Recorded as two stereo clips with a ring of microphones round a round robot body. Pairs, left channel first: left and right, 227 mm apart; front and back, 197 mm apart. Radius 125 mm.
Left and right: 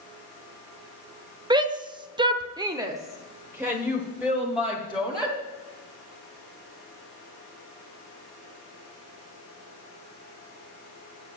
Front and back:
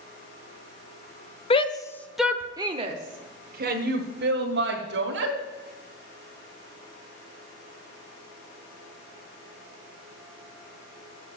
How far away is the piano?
No piano in this recording.